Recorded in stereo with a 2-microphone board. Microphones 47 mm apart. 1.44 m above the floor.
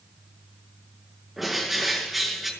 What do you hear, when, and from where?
1.4 s a bird: centre (ahead or behind), 5.5 m